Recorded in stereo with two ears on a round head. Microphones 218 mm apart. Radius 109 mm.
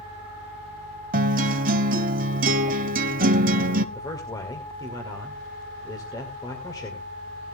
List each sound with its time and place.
1.1 s a guitar: 35° right (ahead or behind), 0.8 m
4.0 s a man speaking: 15° left (ahead or behind), 2 m